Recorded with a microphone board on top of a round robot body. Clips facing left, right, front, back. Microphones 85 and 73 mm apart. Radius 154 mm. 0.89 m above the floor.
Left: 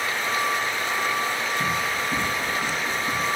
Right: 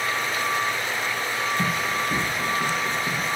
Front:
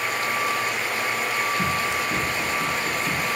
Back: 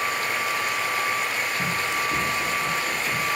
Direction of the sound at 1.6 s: 75° right.